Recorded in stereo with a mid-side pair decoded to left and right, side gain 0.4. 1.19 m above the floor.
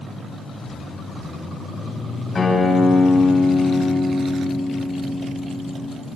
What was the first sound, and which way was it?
A guitar, 40° left.